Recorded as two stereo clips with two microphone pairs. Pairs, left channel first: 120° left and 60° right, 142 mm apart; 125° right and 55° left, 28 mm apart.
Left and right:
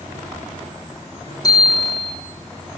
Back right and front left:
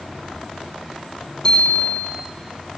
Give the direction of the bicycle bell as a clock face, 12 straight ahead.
6 o'clock.